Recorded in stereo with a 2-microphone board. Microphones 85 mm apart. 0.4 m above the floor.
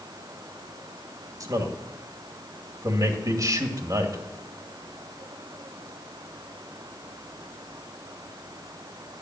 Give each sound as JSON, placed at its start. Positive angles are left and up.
{"t": 1.4, "sound": "a man speaking", "side_deg": -45, "distance_m": 2.5}